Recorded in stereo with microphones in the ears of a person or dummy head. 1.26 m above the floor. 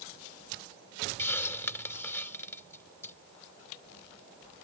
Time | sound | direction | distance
1.2 | a hiss | 10° left (ahead or behind) | ?